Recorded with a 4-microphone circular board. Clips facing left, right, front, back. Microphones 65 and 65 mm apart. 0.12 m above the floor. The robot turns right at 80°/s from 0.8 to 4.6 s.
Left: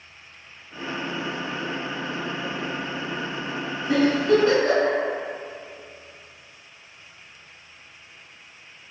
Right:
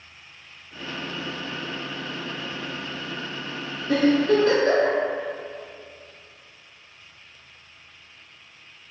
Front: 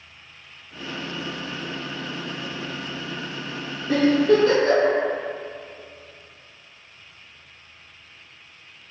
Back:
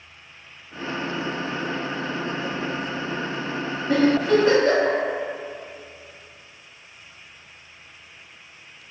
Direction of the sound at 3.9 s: 80° left.